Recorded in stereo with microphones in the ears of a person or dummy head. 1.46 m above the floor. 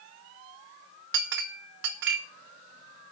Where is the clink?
65° right (ahead or behind), 0.9 m.